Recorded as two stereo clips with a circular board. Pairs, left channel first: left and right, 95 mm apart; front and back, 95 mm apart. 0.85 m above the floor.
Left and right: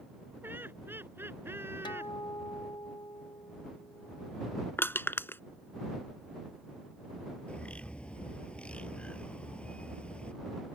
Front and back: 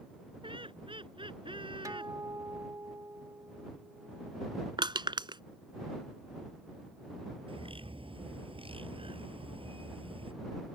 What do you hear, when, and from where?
0.4 s laughter: 160° right; by 2.1 s 155° right
1.9 s a guitar: 130° left
4.8 s crushing: 155° left
7.5 s a bird: 170° left